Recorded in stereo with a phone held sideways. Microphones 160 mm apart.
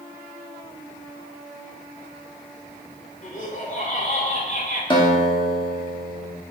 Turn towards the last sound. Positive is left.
turn(degrees=30)  # may be behind; listen again after turning